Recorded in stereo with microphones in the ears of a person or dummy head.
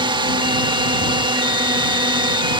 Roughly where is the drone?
Right.